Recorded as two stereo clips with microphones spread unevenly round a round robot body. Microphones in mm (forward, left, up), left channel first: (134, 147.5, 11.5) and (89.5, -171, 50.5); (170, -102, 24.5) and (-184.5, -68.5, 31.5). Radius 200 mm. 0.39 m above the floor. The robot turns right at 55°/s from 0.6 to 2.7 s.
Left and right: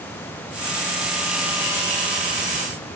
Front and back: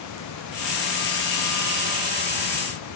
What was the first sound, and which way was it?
Only background noise.